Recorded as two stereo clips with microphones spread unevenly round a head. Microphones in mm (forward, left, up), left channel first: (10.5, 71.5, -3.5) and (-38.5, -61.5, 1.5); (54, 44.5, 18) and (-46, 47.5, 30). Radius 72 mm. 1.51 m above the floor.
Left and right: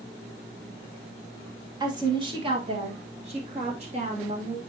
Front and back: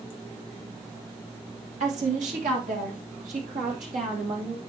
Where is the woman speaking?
170° right, 1.6 m; by 4.6 s 150° right, 3 m.